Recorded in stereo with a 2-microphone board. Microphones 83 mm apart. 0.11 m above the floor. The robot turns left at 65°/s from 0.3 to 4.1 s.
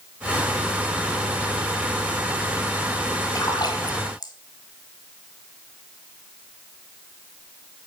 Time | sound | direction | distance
3.4 | a splash | 50° left (ahead or behind) | 1.2 m